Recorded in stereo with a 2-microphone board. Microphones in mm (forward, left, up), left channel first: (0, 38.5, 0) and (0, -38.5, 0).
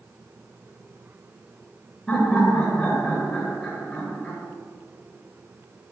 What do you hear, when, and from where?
2.1 s laughter: 10° left (ahead or behind), 2 m